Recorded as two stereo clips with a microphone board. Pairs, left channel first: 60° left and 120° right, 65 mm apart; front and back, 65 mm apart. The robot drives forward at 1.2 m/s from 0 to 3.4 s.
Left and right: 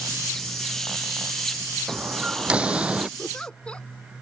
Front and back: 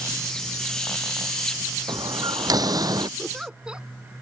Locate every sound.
1.9 s a door slam: 165° left; by 3.1 s 170° left
3.2 s a giggle: 95° left; by 3.9 s 120° left